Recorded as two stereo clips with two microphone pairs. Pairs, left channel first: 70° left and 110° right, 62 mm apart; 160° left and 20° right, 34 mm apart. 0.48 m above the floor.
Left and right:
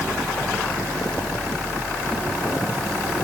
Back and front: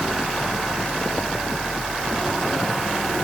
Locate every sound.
Only background noise.